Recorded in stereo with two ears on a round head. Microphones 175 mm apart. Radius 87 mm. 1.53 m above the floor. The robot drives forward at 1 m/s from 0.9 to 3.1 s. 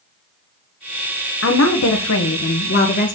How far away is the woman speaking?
About 1.3 m.